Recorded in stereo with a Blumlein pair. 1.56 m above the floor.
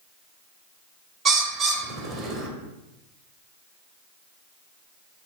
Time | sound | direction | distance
1.2 | a bird | 25° right | 0.7 m